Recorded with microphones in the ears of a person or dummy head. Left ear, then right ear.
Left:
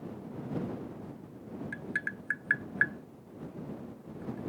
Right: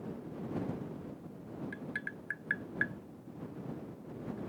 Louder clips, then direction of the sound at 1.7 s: Left 7 dB; 10° left (ahead or behind).